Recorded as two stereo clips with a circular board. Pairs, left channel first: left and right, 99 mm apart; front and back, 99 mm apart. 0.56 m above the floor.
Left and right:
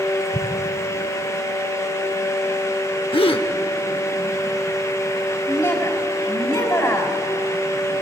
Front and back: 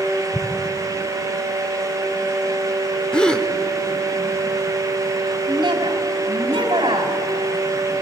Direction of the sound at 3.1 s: 80° left.